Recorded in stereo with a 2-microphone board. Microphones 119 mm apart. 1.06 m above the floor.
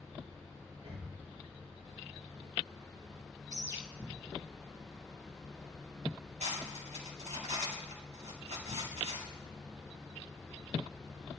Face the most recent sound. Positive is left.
turn(degrees=-75)  # may be behind; listen again after turning